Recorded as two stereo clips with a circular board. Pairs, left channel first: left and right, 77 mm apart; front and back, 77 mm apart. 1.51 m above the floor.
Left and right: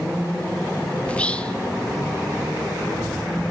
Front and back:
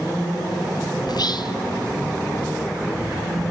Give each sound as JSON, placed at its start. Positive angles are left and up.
{"t": 1.1, "sound": "whispering", "azimuth_deg": 15, "distance_m": 1.0}